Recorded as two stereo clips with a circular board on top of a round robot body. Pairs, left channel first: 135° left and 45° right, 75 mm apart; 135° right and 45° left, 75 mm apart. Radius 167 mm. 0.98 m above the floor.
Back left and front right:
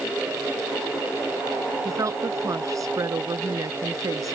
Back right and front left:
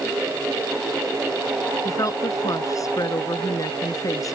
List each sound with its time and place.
1.9 s a woman speaking: 90° right